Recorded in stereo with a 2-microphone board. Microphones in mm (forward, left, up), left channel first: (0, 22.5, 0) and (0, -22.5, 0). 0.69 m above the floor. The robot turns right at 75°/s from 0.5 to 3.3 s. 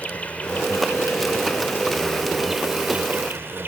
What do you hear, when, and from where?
0.0 s an insect: 35° left; by 3.7 s 115° right